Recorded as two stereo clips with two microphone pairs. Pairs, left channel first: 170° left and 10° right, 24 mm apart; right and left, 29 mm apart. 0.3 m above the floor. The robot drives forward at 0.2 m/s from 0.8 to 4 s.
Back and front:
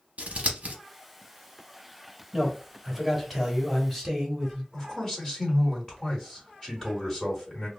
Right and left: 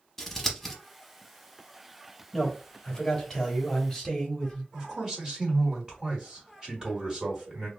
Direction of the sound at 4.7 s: 130° left.